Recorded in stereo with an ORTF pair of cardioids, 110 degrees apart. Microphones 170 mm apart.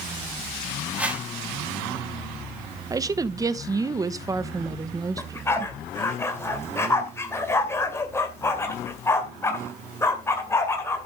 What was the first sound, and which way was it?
A whoosh, 10° right.